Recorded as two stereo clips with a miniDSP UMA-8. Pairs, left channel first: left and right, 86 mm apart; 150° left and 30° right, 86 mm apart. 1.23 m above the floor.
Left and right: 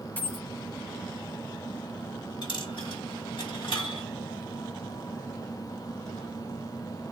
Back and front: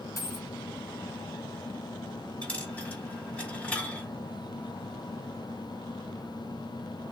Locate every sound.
0.2 s a dropped coin: 140° left, 1.2 m
2.4 s a dropped coin: 75° left, 1.5 m